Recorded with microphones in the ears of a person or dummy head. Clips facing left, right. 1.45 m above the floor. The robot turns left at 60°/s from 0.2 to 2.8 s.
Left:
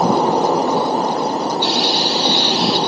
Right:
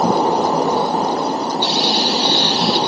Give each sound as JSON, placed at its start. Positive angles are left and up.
{"t": 1.6, "sound": "frying", "azimuth_deg": -75, "distance_m": 7.0}